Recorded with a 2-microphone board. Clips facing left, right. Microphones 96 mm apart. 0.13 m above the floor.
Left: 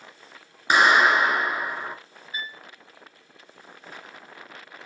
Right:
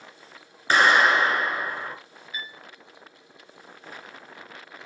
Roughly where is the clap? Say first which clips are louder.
Left 1 dB; centre.